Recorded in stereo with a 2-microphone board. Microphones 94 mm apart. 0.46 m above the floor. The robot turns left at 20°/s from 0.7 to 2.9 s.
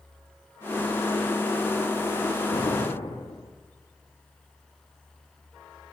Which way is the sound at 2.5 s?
85° left.